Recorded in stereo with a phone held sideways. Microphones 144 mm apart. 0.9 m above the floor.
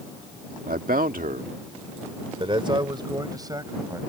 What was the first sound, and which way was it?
A man speaking, 75° right (ahead or behind).